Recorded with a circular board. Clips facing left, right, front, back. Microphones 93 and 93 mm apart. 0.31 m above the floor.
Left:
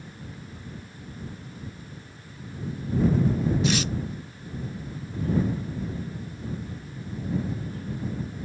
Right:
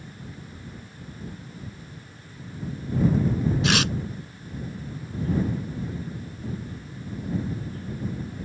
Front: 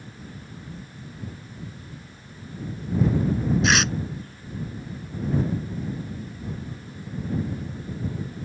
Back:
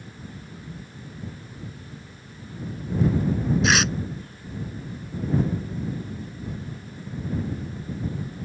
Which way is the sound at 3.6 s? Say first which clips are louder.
Right 2 dB, back 1 dB; 90° right.